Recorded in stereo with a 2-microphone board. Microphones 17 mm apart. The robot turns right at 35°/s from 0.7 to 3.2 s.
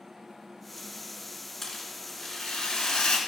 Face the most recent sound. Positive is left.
turn(degrees=75)